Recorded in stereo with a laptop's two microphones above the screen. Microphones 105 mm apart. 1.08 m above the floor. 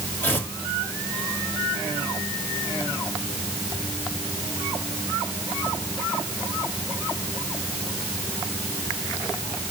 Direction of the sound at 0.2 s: 20° left (ahead or behind).